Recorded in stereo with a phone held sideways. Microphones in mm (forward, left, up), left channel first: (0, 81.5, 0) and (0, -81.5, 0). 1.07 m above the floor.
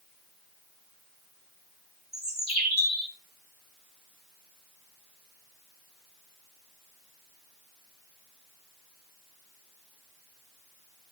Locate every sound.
2.1 s a bird: 75° right (ahead or behind), 4 m